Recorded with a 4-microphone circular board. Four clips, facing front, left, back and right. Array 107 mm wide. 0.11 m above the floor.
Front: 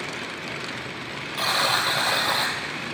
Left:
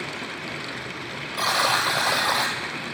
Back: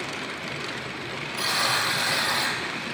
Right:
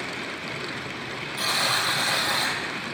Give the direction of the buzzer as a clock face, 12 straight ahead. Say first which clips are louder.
Left 5 dB, front 3 dB; 10 o'clock.